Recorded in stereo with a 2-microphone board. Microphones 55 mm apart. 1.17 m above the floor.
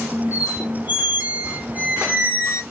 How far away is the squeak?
About 0.9 m.